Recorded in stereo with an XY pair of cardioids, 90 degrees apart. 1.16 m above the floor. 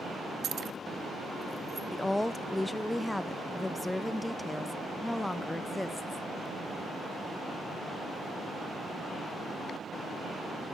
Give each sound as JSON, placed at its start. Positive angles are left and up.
{"t": 0.4, "sound": "keys jangling", "azimuth_deg": -65, "distance_m": 0.6}
{"t": 1.9, "sound": "a woman speaking", "azimuth_deg": 10, "distance_m": 0.8}